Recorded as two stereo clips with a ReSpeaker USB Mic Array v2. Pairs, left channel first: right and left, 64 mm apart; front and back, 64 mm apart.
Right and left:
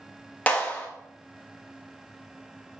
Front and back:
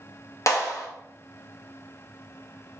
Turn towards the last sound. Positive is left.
turn(degrees=-25)